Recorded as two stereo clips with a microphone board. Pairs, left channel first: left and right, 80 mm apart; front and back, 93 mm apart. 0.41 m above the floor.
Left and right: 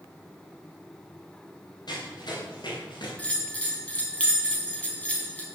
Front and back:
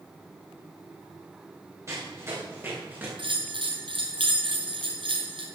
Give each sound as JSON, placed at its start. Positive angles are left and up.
{"t": 1.9, "sound": "running footsteps", "azimuth_deg": 120, "distance_m": 9.5}
{"t": 3.2, "sound": "a bell", "azimuth_deg": 160, "distance_m": 3.5}